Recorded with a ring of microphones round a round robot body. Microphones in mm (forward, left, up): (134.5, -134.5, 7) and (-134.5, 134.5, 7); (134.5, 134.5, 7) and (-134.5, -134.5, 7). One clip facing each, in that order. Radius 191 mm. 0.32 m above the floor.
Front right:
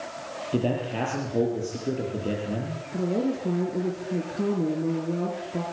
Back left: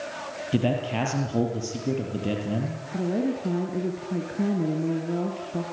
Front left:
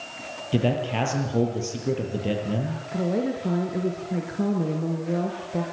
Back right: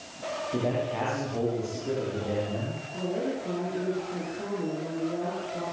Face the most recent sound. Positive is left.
turn(degrees=55)